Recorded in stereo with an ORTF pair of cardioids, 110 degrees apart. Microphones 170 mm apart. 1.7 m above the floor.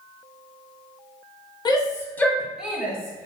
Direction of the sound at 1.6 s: 25° left.